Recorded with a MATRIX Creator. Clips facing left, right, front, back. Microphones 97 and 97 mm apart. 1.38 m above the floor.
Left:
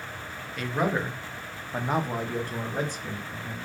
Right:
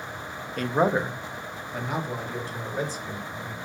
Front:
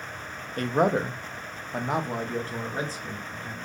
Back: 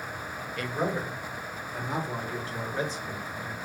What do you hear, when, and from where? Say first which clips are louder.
0.6 s a man speaking: right 4 dB, front 7 dB; 45° right, 0.5 m; by 3.7 s 60° left, 1.5 m